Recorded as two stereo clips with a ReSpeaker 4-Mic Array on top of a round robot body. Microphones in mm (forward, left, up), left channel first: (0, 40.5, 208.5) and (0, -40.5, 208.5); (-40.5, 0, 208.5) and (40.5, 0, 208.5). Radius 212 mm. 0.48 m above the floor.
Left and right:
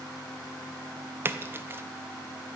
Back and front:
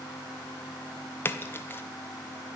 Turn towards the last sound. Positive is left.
turn(degrees=-135)